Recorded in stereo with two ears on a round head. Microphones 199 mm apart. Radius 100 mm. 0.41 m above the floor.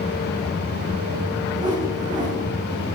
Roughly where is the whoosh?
Centre.